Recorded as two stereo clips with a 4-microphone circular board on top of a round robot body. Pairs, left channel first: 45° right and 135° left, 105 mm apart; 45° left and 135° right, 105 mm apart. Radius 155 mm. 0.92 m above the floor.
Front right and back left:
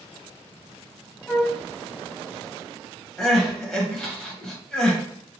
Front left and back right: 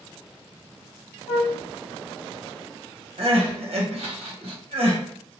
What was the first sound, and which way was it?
A flute, 40° left.